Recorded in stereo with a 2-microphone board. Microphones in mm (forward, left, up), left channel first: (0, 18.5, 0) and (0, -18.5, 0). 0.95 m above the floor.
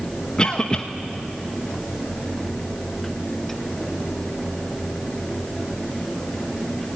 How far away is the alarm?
No alarm in this recording.